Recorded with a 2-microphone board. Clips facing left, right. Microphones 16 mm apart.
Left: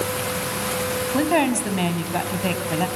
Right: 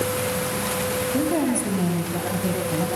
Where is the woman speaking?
55° left (ahead or behind), 2.5 m.